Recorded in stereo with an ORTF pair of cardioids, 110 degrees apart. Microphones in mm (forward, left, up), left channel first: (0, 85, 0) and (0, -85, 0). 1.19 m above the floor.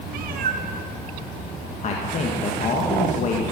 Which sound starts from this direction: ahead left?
A man speaking, at 1.8 s.